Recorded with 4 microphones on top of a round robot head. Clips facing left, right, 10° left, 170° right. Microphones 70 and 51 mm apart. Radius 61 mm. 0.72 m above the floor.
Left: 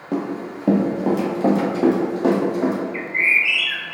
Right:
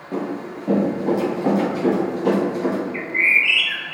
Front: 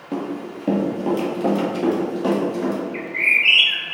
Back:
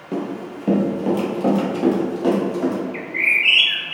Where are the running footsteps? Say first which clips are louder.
Left 1 dB, back 1 dB; 95° left, 0.8 m; by 2.8 s 100° left, 2 m.